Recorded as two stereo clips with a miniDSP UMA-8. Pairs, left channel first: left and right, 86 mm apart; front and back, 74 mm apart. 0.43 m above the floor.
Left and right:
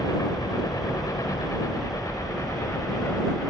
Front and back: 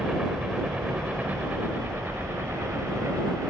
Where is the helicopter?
100° left; by 3.5 s 140° left.